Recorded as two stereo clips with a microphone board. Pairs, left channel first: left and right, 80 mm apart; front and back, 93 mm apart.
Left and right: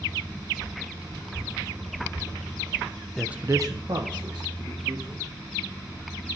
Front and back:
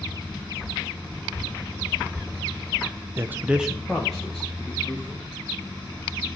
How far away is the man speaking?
About 0.5 m.